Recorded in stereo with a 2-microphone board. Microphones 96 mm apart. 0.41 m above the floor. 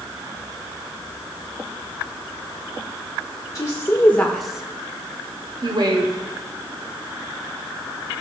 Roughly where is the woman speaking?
Left.